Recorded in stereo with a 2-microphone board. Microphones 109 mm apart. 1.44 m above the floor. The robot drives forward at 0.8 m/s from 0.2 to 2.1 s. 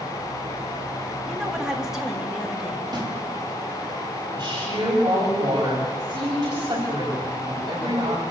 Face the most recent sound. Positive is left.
turn(degrees=-35)  # may be behind; listen again after turning